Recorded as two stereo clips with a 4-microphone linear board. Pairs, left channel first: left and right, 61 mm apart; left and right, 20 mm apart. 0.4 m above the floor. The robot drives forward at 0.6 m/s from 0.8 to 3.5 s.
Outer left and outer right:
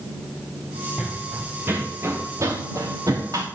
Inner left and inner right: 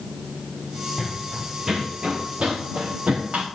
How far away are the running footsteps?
About 1.9 m.